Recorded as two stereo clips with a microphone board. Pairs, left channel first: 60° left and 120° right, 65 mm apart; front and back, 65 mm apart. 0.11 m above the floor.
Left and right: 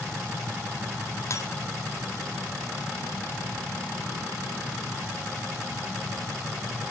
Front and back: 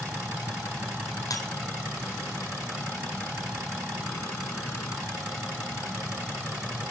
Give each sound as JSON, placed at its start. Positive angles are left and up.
{"t": 1.3, "sound": "breaking glass", "azimuth_deg": 20, "distance_m": 1.9}